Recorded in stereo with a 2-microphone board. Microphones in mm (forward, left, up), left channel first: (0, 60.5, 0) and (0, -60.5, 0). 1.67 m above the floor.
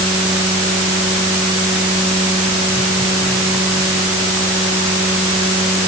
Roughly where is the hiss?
I don't hear a hiss.